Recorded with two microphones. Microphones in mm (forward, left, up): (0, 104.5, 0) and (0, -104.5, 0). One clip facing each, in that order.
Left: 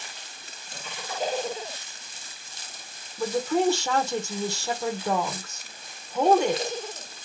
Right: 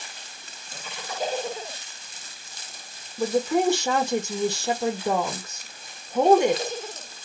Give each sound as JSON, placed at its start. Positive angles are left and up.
{"t": 3.2, "sound": "a woman speaking", "side_deg": -15, "distance_m": 0.8}